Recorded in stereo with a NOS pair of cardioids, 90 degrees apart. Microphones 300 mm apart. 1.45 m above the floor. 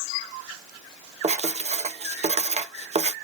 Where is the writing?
25° right, 1.0 m.